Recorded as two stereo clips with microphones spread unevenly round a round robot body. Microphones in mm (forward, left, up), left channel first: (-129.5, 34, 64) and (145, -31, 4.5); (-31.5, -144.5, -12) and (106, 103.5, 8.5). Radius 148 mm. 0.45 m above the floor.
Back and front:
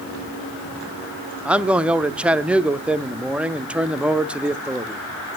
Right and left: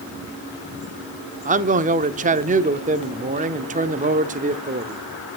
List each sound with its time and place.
1.4 s a man speaking: 35° left, 0.8 m